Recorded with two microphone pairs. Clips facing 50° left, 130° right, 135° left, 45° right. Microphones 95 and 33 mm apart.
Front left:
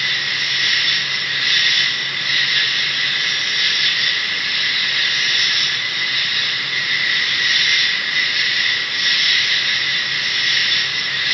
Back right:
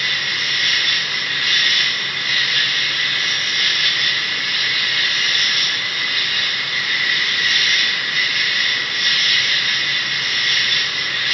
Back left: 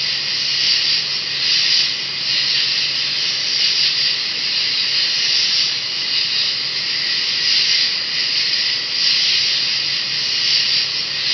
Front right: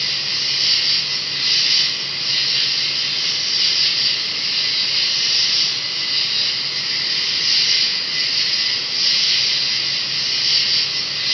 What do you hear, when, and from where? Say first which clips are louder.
0.0 s an insect: even, back left 1 dB; 110° left, 0.8 m